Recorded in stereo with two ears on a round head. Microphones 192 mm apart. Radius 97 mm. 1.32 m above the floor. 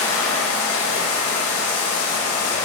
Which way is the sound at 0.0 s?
85° left.